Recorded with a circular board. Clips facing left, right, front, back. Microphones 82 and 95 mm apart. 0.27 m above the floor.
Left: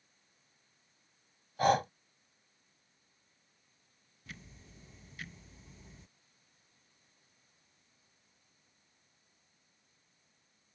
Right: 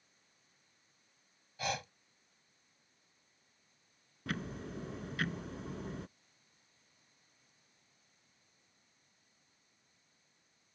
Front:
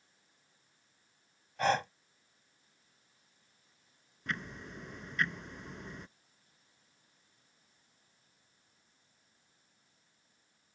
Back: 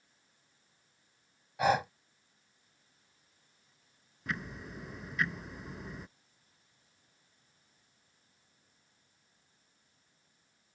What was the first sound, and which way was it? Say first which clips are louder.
Breathing: left 12 dB, back 2 dB; 100° left.